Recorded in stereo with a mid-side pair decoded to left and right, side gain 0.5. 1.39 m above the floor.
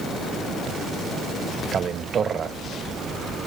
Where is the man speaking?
45° right, 0.7 m.